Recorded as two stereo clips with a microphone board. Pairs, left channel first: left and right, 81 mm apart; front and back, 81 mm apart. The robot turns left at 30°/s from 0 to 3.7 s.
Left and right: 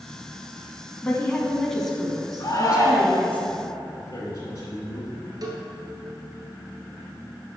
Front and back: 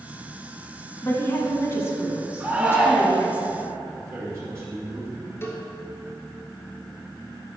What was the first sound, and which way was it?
A woman speaking, 30° left.